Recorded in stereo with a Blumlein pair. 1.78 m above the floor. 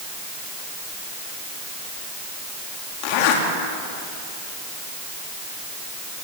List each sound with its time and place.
3.0 s a zipper: 45° left, 4 m